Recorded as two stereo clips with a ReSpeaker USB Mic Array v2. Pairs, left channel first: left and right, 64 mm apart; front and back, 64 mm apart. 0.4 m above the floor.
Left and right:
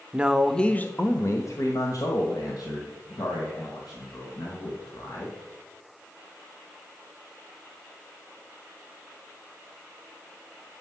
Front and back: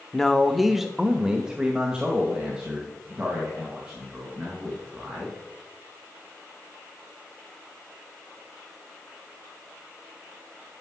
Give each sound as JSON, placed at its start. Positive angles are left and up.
{"t": 0.1, "sound": "a man speaking", "azimuth_deg": -70, "distance_m": 0.8}